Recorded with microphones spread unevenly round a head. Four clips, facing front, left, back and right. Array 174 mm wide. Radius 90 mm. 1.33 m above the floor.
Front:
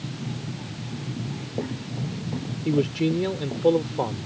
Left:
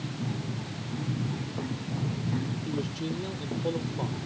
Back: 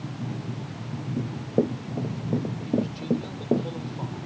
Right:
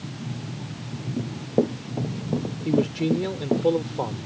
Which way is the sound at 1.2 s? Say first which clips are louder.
Right 10 dB, back 8 dB; 130° right.